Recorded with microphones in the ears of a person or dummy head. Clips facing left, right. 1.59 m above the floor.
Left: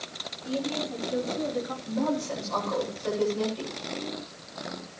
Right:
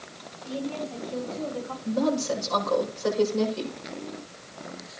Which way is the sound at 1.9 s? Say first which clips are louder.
Right 5 dB; 60° right (ahead or behind).